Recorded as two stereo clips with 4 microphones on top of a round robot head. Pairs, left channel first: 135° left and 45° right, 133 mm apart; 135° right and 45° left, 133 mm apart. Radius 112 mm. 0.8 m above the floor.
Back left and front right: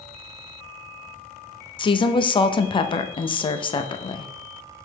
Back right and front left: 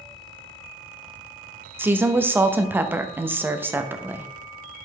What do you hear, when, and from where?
1.8 s a woman speaking: 110° left, 0.8 m